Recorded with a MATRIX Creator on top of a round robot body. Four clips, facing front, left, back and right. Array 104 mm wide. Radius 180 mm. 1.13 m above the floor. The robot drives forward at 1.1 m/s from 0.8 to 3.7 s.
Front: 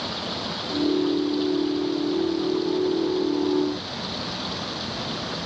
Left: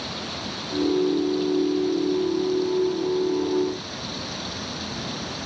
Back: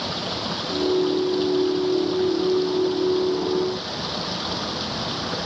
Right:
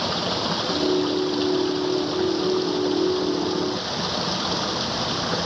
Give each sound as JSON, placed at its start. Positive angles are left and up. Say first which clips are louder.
{"t": 0.0, "sound": "running water", "louder": "right 8 dB, back 2 dB", "azimuth_deg": -105}